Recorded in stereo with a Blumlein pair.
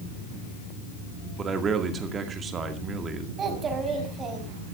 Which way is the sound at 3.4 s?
25° right.